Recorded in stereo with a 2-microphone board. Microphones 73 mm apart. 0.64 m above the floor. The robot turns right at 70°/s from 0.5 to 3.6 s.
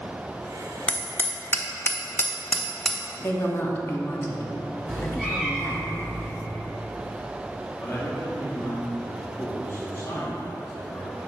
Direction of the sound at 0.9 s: 20° left (ahead or behind).